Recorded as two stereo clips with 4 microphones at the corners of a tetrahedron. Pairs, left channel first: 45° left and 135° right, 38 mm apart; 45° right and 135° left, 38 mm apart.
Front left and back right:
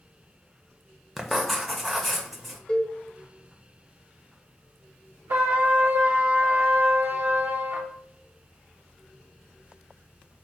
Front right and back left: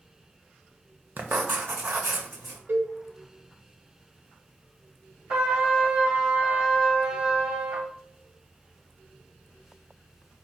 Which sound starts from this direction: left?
A cowbell, at 2.7 s.